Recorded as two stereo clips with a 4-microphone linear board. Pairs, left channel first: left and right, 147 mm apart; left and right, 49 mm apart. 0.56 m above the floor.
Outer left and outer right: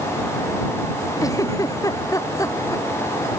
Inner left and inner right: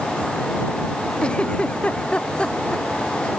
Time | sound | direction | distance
1.2 | a giggle | 25° left (ahead or behind) | ?